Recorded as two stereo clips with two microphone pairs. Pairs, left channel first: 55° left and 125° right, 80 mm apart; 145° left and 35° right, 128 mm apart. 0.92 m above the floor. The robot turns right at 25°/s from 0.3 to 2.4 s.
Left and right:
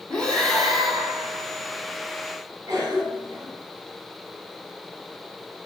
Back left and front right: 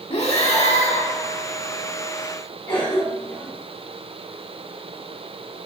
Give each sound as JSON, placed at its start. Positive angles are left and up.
{"t": 0.1, "sound": "breathing", "azimuth_deg": 135, "distance_m": 1.4}
{"t": 2.7, "sound": "a cough", "azimuth_deg": -165, "distance_m": 3.5}